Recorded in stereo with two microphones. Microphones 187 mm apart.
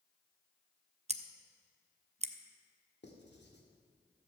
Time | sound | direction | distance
1.1 | scissors | 35° right (ahead or behind) | 0.6 m
3.0 | writing | 70° left (ahead or behind) | 1.6 m